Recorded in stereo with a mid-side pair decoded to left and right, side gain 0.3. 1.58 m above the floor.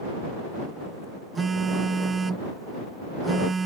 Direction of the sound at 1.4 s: 45° right.